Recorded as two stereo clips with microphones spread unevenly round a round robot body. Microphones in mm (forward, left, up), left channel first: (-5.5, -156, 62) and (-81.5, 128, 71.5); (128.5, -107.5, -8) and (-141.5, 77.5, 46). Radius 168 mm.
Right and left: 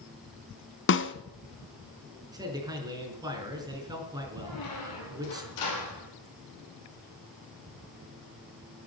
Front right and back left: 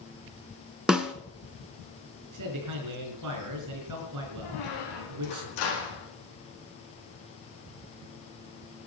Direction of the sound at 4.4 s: 55° right.